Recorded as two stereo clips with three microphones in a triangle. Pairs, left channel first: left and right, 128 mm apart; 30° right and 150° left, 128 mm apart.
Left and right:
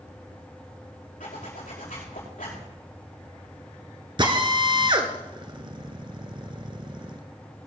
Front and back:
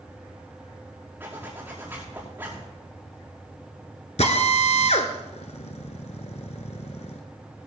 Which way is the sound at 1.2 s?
75° left.